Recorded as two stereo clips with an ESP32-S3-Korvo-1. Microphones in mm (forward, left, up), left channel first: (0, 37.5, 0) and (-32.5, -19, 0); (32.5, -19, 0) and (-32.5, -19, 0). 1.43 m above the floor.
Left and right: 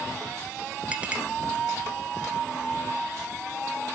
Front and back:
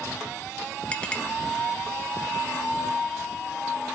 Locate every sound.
0.9 s a clink: 65° right, 0.9 m